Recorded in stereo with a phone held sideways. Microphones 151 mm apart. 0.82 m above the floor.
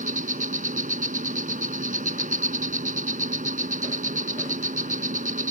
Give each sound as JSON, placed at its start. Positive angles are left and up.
{"t": 0.0, "sound": "an insect", "side_deg": -65}